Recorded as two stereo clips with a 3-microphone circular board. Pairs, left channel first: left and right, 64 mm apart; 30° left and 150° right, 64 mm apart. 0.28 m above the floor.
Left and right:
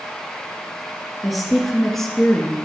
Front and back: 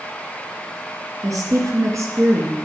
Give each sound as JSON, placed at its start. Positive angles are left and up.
{"t": 1.2, "sound": "a woman speaking", "azimuth_deg": 180, "distance_m": 3.5}